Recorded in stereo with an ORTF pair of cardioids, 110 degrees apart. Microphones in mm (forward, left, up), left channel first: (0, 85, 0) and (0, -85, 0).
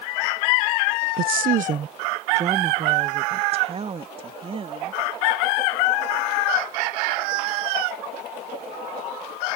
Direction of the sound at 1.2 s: 65° right.